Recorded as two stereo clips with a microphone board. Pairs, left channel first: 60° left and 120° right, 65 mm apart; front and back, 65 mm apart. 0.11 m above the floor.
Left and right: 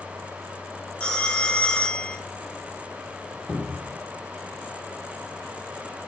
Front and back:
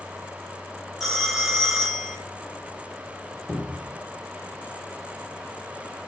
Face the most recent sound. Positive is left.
turn(degrees=-70)